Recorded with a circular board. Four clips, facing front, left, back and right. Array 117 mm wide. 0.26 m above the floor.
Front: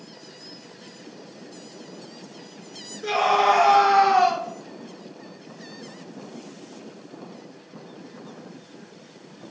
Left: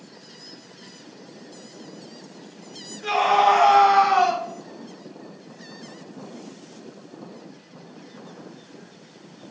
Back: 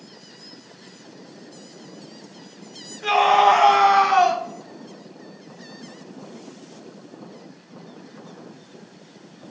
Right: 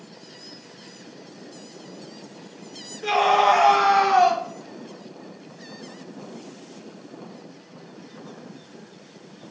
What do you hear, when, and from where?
3.0 s a scream: 175° right, 1.8 m; by 4.4 s 170° left, 2.5 m